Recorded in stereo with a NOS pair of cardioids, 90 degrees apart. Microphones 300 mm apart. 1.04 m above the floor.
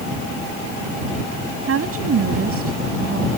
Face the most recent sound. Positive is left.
turn(degrees=-55)